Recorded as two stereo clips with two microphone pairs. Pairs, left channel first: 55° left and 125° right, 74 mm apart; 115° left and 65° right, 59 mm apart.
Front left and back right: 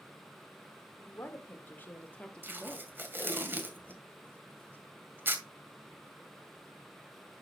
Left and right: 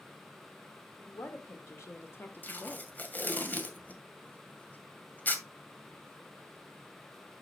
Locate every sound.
1.0 s a woman speaking: 105° left, 2.5 m; by 2.9 s 165° left, 1.1 m
2.4 s tape being pulled: 170° left, 1.9 m